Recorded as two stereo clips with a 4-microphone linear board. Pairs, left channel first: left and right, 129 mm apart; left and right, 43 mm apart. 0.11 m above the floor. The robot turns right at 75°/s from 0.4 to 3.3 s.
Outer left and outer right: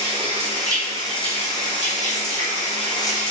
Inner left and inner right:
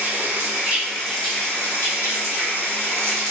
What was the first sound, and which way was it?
Running water, 55° right.